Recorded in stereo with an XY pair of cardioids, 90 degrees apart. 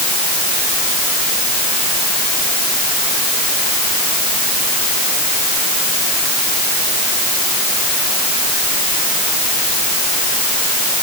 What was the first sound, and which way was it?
Only background noise.